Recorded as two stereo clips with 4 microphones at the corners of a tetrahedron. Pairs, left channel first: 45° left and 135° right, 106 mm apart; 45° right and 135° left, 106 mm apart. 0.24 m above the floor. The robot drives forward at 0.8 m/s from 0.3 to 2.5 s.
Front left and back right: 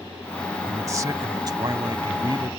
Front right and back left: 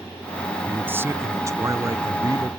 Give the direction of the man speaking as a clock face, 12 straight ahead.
6 o'clock.